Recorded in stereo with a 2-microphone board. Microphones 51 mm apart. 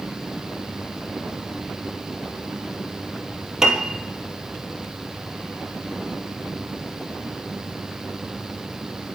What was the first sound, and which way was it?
A piano, 10° right (ahead or behind).